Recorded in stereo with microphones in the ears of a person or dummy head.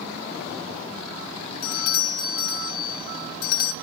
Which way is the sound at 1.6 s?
50° left (ahead or behind).